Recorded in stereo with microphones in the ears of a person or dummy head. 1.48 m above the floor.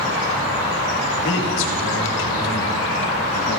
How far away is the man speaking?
About 1.8 m.